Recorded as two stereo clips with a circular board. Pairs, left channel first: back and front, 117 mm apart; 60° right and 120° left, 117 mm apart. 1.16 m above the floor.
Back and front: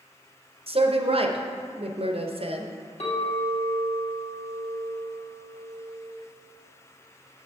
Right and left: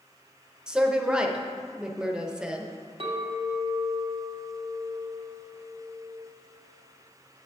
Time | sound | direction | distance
0.7 | a woman speaking | 35° left | 0.7 m
3.0 | a clink | 155° left | 1.7 m